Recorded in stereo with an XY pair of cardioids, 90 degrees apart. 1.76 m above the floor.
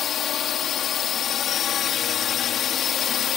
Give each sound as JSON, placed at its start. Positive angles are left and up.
{"t": 0.0, "sound": "a drone", "azimuth_deg": 70}